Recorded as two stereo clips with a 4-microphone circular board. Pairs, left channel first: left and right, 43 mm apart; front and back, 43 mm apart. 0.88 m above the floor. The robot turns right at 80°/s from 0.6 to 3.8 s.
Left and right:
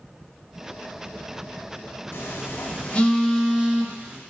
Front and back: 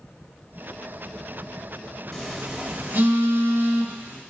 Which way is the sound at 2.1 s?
80° left.